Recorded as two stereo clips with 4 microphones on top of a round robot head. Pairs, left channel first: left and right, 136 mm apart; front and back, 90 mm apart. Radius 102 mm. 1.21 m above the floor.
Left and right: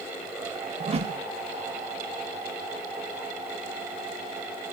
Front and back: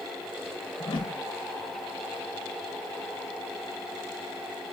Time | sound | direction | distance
0.8 | a whoosh | 45° right | 0.7 m